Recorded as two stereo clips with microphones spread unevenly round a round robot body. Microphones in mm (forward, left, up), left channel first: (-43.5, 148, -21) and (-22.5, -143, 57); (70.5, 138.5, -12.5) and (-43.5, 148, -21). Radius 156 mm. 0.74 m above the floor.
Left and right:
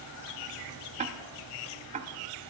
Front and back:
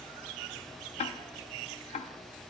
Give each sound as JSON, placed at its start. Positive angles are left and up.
{"t": 1.0, "sound": "ticking", "azimuth_deg": -10, "distance_m": 0.6}